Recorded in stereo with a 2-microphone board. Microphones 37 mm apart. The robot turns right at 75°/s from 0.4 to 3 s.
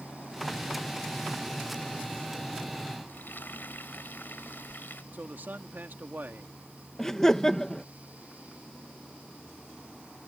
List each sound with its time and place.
3.1 s frying: 65° left (ahead or behind)
5.1 s a man speaking: 65° right (ahead or behind)
7.0 s laughter: 10° left (ahead or behind)